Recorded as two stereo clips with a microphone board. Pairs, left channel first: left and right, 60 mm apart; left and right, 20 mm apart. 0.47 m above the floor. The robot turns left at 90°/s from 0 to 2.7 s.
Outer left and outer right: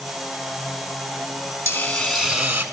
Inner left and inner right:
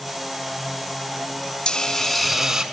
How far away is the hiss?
About 4 m.